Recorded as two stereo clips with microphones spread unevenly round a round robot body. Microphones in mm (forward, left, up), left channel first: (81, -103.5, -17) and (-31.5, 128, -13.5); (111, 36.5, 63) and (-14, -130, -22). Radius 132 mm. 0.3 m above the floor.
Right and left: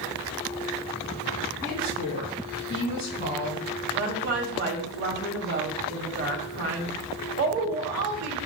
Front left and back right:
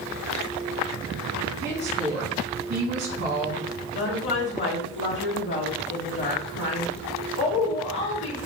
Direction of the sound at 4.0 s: 100° left.